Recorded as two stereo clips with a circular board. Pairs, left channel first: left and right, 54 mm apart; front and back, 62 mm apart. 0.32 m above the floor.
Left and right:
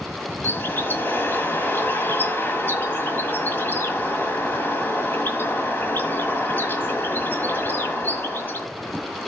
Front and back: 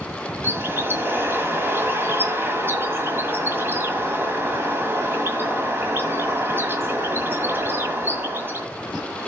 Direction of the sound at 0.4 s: 135° left.